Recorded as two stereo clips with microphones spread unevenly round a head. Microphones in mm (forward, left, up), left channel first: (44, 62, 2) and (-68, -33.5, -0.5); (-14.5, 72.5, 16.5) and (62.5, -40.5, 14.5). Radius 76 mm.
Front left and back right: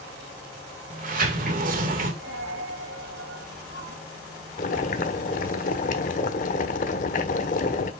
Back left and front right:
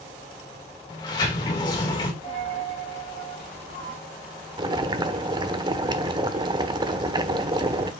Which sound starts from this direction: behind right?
A dropped coin, at 2.2 s.